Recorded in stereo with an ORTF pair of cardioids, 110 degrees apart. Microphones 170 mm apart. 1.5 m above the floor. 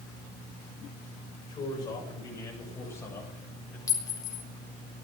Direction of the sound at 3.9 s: 20° left.